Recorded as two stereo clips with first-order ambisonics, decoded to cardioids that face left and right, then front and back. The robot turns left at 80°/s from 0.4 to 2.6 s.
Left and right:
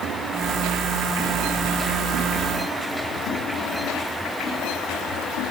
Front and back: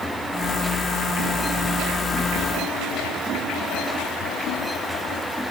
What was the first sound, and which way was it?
Only background noise.